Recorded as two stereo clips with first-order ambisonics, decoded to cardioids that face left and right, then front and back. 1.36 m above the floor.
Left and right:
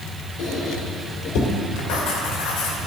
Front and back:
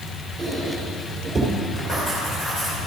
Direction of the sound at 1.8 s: 75° left.